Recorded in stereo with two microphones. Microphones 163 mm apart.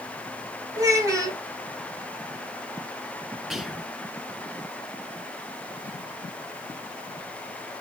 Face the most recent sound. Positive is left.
turn(degrees=0)  # may be behind; listen again after turning